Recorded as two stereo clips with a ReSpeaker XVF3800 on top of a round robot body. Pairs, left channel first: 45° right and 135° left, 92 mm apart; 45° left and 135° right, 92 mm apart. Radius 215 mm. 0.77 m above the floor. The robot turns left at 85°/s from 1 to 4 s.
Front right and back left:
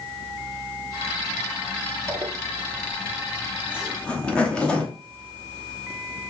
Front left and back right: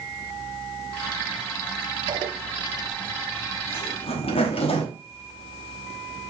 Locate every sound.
2.1 s a zipper: 165° right, 0.9 m; by 6.3 s 35° left, 0.9 m